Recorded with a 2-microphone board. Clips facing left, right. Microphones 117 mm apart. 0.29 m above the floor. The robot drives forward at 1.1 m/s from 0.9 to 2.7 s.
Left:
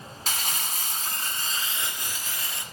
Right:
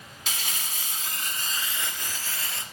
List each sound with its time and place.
0.3 s crumpling: 45° left (ahead or behind), 1.0 m; by 2.6 s 15° left (ahead or behind), 2.5 m